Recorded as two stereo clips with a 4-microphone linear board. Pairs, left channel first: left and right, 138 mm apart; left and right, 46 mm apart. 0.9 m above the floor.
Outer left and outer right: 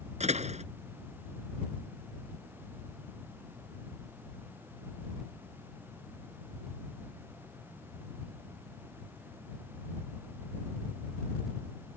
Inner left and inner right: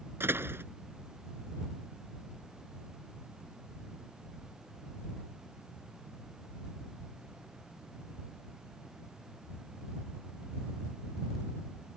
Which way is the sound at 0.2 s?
55° right (ahead or behind).